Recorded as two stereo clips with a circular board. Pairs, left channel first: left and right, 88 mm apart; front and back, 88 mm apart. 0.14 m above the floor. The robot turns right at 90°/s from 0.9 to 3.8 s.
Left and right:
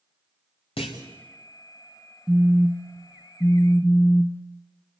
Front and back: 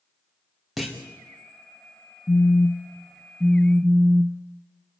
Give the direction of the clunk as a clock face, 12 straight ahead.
9 o'clock.